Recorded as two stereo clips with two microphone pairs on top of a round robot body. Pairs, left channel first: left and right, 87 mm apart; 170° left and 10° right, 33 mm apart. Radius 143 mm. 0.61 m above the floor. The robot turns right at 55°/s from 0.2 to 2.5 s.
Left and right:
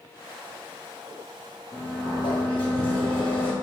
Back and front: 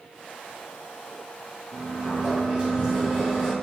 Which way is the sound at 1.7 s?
30° left.